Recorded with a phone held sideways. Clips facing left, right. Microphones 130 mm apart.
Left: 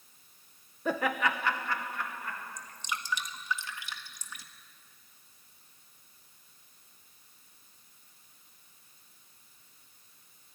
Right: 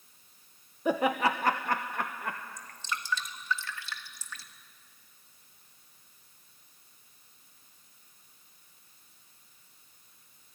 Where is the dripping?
20° left (ahead or behind), 1.5 m.